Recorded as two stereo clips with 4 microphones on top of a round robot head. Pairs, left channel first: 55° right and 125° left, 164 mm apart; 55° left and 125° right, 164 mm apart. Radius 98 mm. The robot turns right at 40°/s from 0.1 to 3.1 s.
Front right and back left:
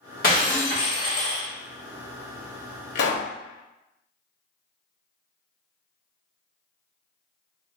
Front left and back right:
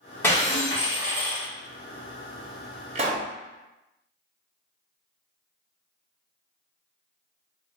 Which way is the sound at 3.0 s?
75° right.